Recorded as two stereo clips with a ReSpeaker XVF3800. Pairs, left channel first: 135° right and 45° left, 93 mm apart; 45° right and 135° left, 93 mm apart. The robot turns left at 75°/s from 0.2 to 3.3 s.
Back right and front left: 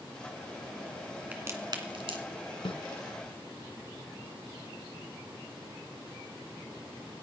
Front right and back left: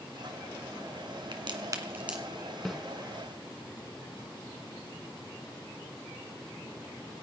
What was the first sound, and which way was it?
A crack, 115° left.